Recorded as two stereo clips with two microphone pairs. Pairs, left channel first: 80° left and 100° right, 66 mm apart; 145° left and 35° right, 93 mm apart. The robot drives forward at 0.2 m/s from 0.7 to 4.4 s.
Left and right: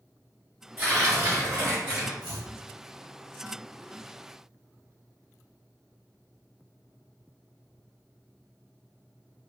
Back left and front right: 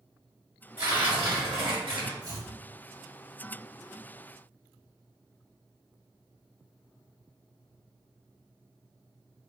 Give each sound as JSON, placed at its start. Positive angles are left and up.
{"t": 0.8, "sound": "tearing paper", "azimuth_deg": -40, "distance_m": 1.7}
{"t": 2.2, "sound": "chopping", "azimuth_deg": -90, "distance_m": 1.6}